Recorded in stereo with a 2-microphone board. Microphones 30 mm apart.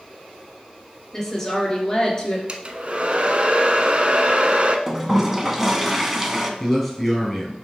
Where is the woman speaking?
15° left (ahead or behind), 2.5 m; by 2.4 s 35° left (ahead or behind), 2 m.